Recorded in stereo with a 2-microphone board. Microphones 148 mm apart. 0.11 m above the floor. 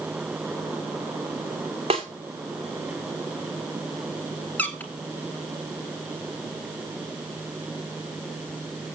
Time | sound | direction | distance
1.9 | a snare drum | 40° right (ahead or behind) | 2.5 m
4.6 | a squeak | 10° left (ahead or behind) | 1.6 m